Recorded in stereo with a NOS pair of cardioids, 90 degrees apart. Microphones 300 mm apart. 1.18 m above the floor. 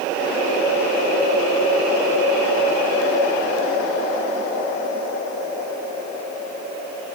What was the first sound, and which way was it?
Only background noise.